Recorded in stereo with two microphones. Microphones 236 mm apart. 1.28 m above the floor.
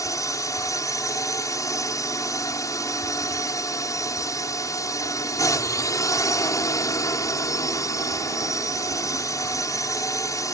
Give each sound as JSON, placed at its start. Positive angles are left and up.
{"t": 0.0, "sound": "a drone", "side_deg": 15}